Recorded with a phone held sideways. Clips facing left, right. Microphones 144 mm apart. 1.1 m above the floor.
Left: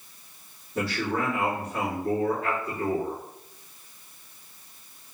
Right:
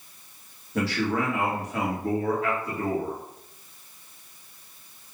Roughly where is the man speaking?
Right.